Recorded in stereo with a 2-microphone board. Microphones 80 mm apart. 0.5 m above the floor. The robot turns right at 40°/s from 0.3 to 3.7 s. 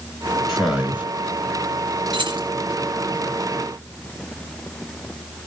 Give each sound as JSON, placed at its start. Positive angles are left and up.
{"t": 0.5, "sound": "a man speaking", "side_deg": -5, "distance_m": 5.0}
{"t": 2.1, "sound": "keys jangling", "side_deg": -80, "distance_m": 5.0}